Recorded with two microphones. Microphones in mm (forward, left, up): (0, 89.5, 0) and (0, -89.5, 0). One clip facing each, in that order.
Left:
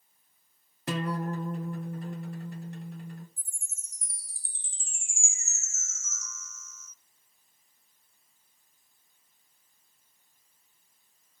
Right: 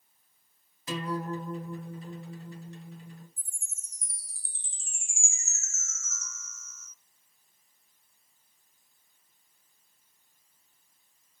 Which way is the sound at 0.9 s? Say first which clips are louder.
Left 1 dB; 60° left (ahead or behind).